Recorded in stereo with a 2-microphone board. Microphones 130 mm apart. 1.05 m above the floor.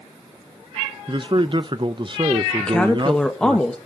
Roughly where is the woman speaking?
Centre.